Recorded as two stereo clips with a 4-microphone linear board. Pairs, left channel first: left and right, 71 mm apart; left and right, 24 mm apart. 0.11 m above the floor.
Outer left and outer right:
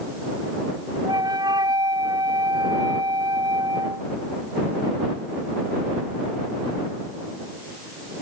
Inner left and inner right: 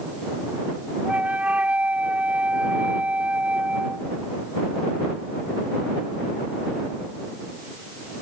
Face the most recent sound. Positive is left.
turn(degrees=-70)  # may be behind; listen again after turning